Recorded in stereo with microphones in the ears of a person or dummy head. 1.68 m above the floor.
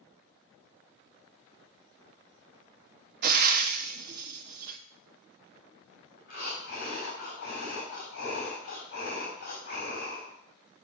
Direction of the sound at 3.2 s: 55° right (ahead or behind).